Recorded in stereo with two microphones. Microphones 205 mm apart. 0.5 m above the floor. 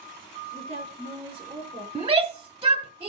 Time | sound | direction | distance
0.5 | a woman speaking | 30° right (ahead or behind) | 7.5 m
1.9 | a shout | 25° right (ahead or behind) | 0.9 m